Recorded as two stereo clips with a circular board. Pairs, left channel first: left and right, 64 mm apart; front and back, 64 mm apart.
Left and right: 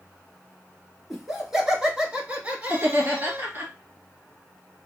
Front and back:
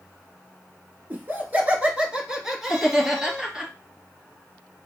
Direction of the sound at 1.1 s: 170° right.